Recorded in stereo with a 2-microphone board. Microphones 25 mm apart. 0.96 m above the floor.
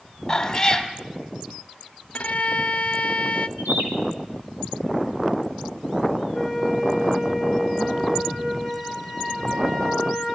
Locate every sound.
0.3 s a cat meowing: 15° left (ahead or behind), 1.9 m
2.1 s a violin: 55° left (ahead or behind), 0.7 m
3.6 s a bird: 80° right, 7 m
6.3 s a flute: 15° right (ahead or behind), 5.5 m